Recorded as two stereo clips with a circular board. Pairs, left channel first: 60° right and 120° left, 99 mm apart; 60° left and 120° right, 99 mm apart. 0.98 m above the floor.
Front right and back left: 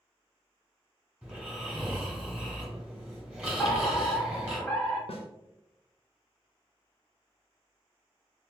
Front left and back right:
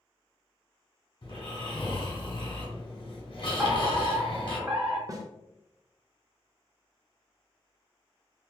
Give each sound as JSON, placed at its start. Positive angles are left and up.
{"t": 1.2, "sound": "snoring", "azimuth_deg": 40, "distance_m": 1.4}
{"t": 3.6, "sound": "a fire alarm", "azimuth_deg": -105, "distance_m": 1.4}
{"t": 5.1, "sound": "a snare drum", "azimuth_deg": -65, "distance_m": 0.5}